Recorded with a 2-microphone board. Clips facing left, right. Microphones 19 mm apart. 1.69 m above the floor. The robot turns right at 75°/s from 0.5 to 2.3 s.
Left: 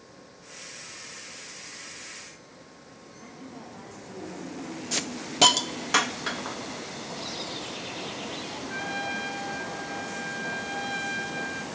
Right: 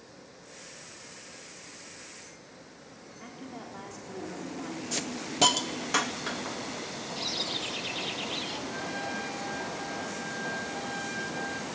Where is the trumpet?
55° left (ahead or behind), 2.5 m.